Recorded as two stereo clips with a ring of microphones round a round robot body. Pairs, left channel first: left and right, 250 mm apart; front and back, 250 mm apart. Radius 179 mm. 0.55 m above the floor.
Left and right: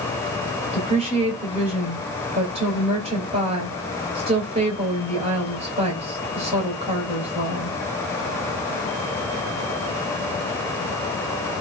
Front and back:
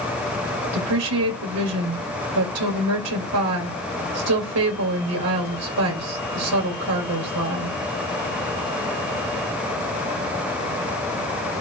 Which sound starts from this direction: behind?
A woman speaking, at 0.7 s.